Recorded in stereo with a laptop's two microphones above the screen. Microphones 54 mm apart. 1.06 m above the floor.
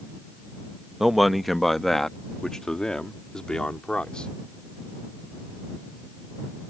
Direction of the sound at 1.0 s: 5° right (ahead or behind).